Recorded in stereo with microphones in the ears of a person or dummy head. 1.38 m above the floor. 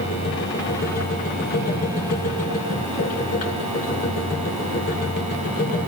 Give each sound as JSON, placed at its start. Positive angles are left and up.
{"t": 0.0, "sound": "a machine running", "side_deg": 45, "distance_m": 1.4}